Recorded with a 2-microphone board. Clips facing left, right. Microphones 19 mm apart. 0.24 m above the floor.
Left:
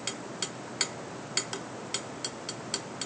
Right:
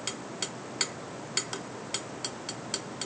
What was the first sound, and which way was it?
Only background noise.